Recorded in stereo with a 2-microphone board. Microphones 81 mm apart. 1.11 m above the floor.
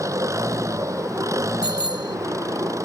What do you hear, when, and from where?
0.0 s an engine running: 40° right (ahead or behind)
1.6 s a bicycle bell: 85° left